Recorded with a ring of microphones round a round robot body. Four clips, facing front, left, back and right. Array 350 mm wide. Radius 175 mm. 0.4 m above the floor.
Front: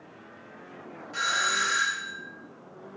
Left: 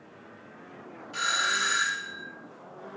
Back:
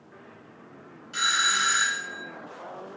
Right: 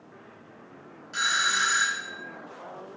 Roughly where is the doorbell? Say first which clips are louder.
Right 2 dB, back 1 dB; behind right.